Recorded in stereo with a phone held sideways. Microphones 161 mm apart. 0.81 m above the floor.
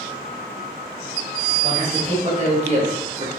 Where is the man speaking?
45° right (ahead or behind), 2.5 m; by 3.3 s 30° right (ahead or behind), 1.3 m.